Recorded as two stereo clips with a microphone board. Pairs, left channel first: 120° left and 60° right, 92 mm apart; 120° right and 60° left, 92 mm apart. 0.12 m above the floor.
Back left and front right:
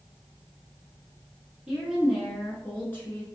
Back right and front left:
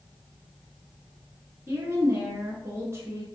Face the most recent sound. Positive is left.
turn(degrees=90)